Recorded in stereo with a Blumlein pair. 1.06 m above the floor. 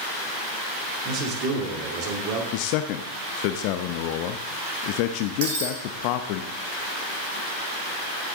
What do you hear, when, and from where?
1.1 s a man speaking: 35° right, 2.5 m
2.5 s a man speaking: 45° left, 0.7 m
5.4 s breaking glass: 55° right, 4 m